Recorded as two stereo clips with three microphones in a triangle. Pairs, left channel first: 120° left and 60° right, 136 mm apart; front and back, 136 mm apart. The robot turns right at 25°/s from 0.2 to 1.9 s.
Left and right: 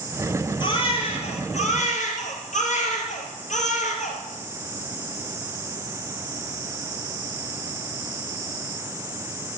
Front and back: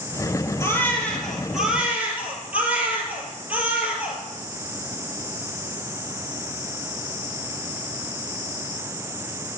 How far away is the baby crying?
About 3 m.